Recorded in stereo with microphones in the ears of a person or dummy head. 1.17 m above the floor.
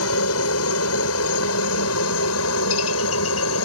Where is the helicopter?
75° left (ahead or behind).